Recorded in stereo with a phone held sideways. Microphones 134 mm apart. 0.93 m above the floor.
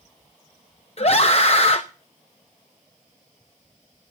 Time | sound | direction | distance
1.0 | a scream | 50° left (ahead or behind) | 0.6 m